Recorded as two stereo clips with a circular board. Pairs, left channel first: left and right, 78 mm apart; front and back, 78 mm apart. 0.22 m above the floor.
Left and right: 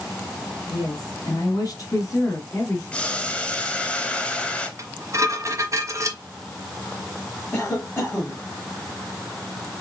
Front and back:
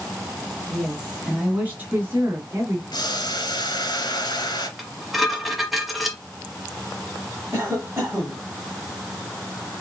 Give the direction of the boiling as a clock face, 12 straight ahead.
11 o'clock.